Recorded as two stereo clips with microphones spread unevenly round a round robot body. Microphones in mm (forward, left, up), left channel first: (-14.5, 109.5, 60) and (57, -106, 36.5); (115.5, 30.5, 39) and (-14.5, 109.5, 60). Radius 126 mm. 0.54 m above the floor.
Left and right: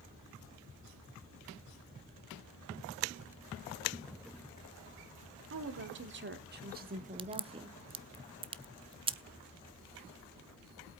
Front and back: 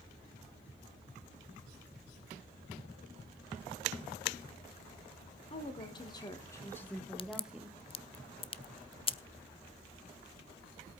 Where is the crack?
25° right, 0.7 m.